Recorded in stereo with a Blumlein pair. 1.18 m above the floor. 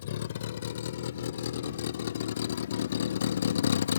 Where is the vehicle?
60° left; by 4.0 s 65° left.